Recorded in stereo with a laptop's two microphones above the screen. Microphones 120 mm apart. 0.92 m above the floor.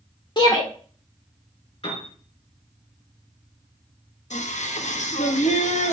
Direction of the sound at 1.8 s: 50° left (ahead or behind).